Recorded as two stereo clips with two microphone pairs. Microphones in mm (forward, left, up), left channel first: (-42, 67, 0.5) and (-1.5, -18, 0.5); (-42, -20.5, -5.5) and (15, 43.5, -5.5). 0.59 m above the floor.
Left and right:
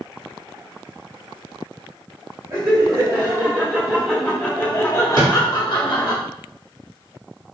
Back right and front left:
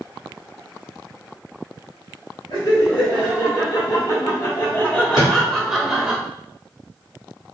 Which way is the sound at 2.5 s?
120° right.